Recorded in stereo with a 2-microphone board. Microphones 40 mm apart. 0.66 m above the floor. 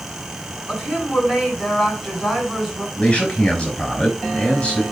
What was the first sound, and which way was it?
A woman speaking, 10° right (ahead or behind).